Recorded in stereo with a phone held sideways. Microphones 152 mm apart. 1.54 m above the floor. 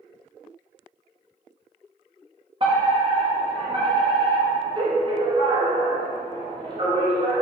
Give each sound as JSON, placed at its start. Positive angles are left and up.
{"t": 2.6, "sound": "a fire alarm", "side_deg": -35, "distance_m": 5.0}